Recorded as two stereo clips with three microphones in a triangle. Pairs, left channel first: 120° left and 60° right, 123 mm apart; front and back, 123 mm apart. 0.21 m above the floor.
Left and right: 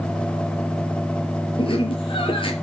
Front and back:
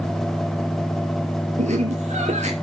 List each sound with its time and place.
1.6 s laughter: 165° left, 4.5 m